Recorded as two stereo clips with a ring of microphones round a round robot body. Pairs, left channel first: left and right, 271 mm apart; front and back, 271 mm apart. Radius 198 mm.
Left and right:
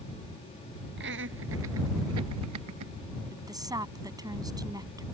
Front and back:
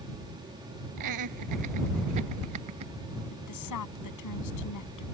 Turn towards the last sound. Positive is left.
turn(degrees=-15)